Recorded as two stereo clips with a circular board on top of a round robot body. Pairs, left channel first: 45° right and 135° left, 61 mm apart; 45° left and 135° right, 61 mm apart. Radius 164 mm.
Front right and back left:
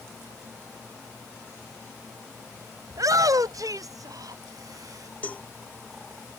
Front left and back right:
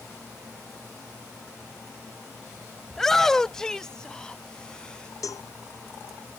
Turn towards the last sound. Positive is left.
turn(degrees=20)